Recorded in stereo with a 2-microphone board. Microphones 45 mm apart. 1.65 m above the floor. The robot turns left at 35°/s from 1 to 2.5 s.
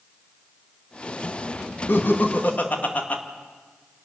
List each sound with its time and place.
1.9 s laughter: 60° left (ahead or behind), 2.5 m; by 3.2 s 40° left (ahead or behind), 2.5 m